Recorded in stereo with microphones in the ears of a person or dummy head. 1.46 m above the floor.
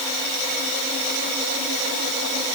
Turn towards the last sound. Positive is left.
No sound to turn to.